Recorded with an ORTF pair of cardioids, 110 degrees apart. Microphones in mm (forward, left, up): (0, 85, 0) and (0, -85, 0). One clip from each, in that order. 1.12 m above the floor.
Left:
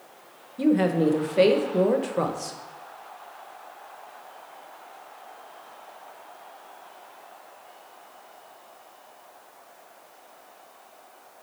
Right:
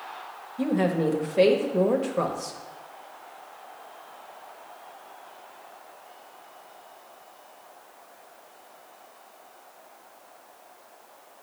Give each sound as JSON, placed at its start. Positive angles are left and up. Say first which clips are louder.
{"t": 0.6, "sound": "a woman speaking", "louder": "left 3 dB", "azimuth_deg": 10, "distance_m": 0.8}